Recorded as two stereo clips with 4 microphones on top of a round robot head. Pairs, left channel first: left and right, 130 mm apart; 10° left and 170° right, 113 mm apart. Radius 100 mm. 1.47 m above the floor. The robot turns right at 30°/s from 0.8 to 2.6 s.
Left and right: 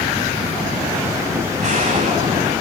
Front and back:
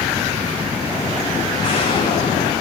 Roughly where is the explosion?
Ahead right.